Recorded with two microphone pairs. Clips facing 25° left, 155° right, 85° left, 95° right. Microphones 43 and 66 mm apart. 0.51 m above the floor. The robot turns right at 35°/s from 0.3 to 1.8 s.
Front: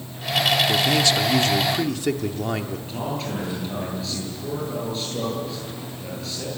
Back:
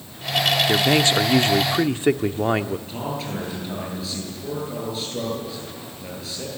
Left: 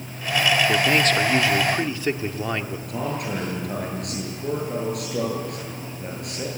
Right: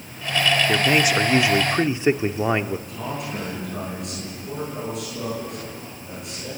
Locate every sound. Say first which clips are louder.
0.7 s a man speaking: back 2 dB, even; 175° right, 0.8 m; by 2.8 s 135° right, 0.8 m
2.9 s a man speaking: front 1 dB, left 3 dB; 115° left, 10 m